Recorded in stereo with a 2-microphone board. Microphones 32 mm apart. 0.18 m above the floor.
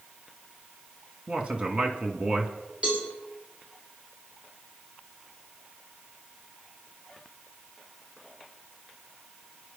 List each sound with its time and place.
1.3 s a man speaking: 35° right (ahead or behind), 1.9 m; by 2.5 s 40° right (ahead or behind), 2 m
2.8 s a cowbell: 35° right (ahead or behind), 7 m